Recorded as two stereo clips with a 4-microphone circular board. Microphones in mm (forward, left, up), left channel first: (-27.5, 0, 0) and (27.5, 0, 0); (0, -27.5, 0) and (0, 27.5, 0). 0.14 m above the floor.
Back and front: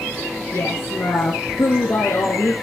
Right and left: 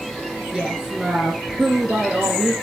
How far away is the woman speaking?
About 1.9 m.